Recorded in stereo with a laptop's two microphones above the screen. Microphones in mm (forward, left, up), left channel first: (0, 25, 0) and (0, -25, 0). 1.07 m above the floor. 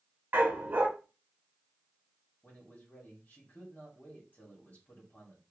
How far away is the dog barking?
About 1.0 m.